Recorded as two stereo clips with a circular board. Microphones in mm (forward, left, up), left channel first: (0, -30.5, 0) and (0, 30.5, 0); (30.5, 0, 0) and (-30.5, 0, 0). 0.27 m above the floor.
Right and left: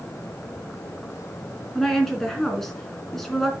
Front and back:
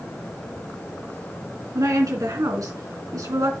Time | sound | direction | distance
1.8 | a woman speaking | 175° right | 3 m